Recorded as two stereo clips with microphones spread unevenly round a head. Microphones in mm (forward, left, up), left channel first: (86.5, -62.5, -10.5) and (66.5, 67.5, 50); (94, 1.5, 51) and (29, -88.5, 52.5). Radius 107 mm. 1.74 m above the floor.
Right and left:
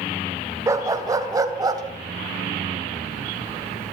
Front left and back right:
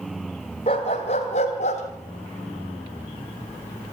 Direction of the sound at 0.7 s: 90° left.